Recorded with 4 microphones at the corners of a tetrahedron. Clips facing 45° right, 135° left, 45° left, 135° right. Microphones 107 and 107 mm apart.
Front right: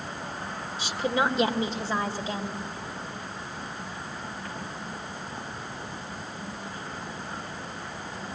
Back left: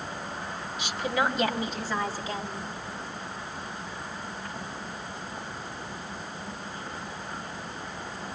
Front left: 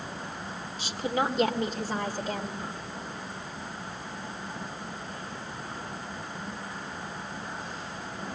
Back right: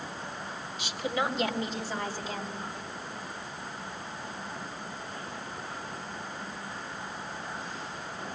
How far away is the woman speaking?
About 1.8 m.